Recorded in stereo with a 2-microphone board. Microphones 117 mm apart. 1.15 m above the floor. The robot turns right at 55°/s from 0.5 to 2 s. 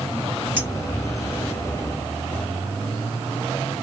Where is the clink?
20° right (ahead or behind), 1.8 m; by 0.7 s 25° right (ahead or behind), 1.8 m.